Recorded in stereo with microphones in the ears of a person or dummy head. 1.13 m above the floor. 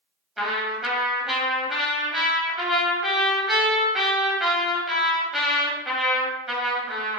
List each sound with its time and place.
0.4 s a trumpet: 5° right (ahead or behind), 1.0 m